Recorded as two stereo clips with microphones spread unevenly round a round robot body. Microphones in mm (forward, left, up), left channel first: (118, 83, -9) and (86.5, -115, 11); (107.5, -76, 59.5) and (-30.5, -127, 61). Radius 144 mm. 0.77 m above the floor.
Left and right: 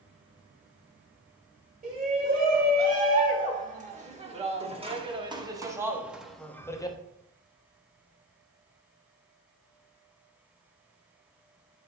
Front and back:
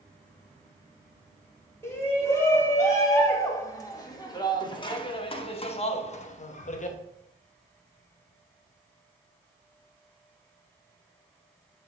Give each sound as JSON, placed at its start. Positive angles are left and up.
{"t": 1.8, "sound": "a shout", "azimuth_deg": -50, "distance_m": 3.5}